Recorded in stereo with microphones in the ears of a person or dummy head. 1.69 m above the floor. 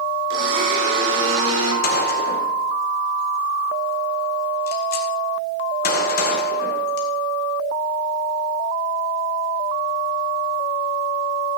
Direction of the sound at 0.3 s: 80° right.